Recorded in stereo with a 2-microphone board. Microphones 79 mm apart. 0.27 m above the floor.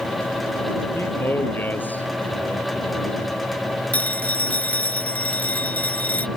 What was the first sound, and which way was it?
A man speaking, 30° left (ahead or behind).